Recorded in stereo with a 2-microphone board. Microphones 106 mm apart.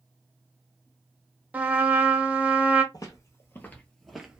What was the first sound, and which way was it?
A trumpet, 15° right (ahead or behind).